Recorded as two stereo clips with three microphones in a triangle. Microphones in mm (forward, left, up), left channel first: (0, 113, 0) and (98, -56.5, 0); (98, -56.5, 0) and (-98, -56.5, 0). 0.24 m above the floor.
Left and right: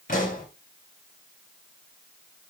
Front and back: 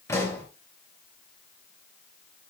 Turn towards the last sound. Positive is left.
turn(degrees=75)